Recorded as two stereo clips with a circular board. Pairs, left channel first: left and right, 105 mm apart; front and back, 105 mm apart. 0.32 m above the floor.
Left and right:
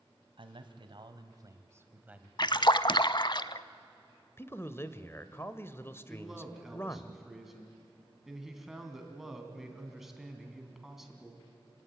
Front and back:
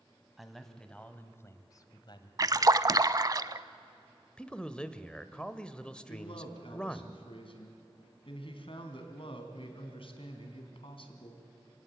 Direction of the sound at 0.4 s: 95° right.